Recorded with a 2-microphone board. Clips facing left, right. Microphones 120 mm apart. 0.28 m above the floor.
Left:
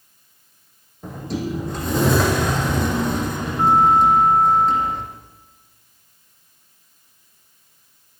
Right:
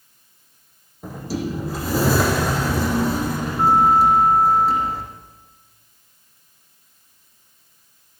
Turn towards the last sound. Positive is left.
turn(degrees=-5)  # may be behind; listen again after turning